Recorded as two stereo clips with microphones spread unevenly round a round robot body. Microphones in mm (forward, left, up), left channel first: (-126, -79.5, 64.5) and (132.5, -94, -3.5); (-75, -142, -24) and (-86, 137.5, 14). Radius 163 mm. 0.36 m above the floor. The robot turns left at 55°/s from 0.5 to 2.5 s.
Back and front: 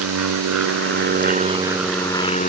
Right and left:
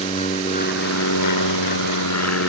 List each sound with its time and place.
0.0 s an aircraft: 15° right; by 2.5 s 125° right